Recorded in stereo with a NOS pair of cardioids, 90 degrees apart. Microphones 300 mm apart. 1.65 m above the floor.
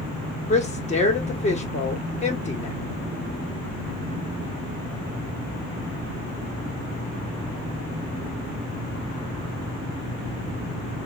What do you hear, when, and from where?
0.5 s a woman speaking: 20° left, 1.6 m